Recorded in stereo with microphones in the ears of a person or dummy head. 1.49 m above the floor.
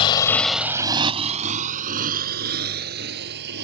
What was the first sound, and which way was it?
A motorcycle, 30° left (ahead or behind).